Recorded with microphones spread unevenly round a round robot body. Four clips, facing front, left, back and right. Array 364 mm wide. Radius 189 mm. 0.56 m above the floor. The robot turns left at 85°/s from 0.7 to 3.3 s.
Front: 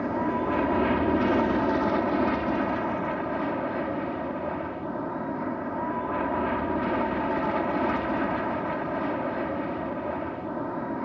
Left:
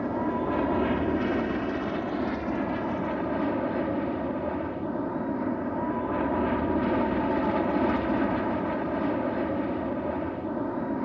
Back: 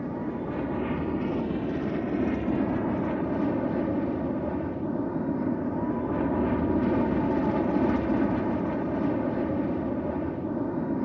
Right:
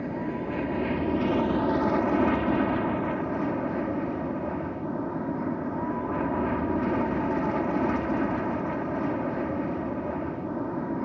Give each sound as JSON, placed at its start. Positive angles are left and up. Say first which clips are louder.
{"t": 0.0, "sound": "an aircraft", "louder": "left 3 dB, front 5 dB", "azimuth_deg": 35}